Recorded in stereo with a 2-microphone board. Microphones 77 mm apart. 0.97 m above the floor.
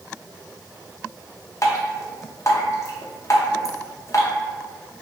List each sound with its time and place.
1.6 s dripping: 45° left (ahead or behind), 0.6 m